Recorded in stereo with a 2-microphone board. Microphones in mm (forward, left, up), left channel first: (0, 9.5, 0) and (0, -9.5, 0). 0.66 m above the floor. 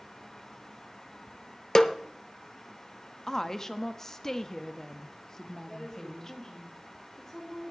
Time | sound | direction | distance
1.8 | a snare drum | 35° left (ahead or behind) | 0.7 m
3.3 | a woman speaking | 25° left (ahead or behind) | 0.7 m
5.7 | a woman speaking | 25° left (ahead or behind) | 7 m